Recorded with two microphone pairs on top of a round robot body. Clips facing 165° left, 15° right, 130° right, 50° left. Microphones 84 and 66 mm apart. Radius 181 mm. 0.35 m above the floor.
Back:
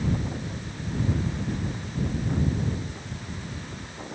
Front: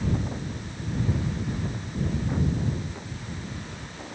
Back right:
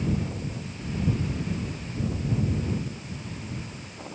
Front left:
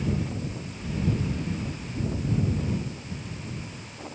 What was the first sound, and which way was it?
Only background noise.